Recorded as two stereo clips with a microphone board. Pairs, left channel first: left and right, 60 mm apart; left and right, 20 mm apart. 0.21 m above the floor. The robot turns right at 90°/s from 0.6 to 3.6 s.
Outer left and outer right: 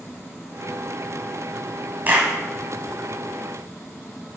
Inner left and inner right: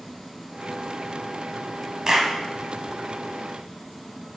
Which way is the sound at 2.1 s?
35° right (ahead or behind).